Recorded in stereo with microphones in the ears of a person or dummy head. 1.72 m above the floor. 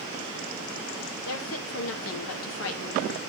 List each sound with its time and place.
1.2 s a woman speaking: 80° left, 2.5 m